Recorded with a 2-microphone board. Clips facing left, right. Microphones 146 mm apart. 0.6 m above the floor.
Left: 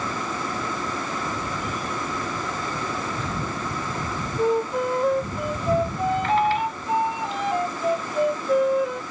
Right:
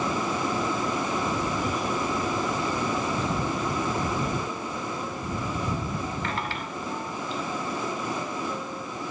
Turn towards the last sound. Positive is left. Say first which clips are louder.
# left 11 dB
turn(degrees=85)